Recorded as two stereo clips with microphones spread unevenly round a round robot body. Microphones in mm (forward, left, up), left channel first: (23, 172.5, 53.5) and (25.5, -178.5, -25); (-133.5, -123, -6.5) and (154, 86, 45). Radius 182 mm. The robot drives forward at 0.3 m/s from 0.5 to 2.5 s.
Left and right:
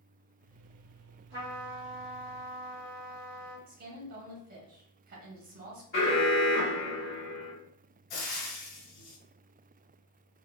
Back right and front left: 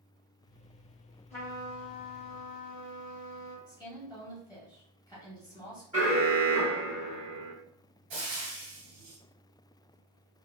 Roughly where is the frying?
Ahead left.